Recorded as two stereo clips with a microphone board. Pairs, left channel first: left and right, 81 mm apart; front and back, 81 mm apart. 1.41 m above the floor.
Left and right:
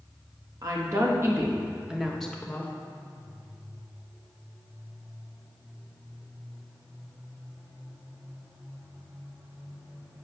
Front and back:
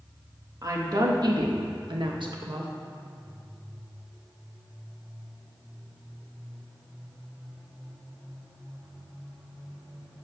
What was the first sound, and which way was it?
A woman speaking, 130° right.